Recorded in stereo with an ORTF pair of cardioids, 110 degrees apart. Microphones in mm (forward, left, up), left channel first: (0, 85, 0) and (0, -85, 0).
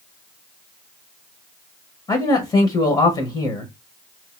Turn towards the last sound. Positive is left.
turn(degrees=25)